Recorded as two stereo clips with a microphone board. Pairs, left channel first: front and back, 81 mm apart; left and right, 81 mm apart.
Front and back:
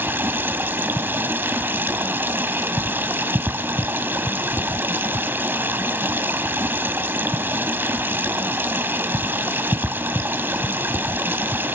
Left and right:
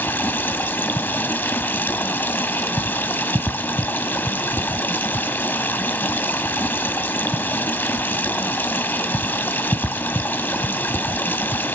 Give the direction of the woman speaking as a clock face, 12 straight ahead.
No woman speaking in this recording.